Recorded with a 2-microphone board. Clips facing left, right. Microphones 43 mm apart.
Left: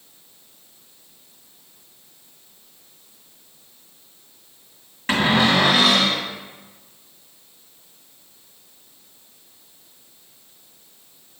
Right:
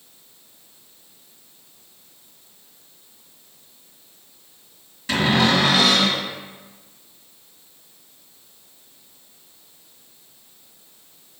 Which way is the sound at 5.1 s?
40° left (ahead or behind).